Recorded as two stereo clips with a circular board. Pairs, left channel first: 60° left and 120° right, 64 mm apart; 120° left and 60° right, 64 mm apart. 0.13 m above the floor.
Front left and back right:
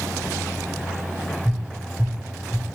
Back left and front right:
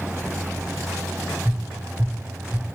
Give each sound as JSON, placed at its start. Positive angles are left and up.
{"t": 1.4, "sound": "tapping", "azimuth_deg": 25, "distance_m": 2.0}